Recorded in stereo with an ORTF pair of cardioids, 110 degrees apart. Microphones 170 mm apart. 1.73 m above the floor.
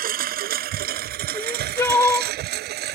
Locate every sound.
0.0 s a lawn mower: 60° right; by 3.0 s 75° right
1.3 s crying: 15° left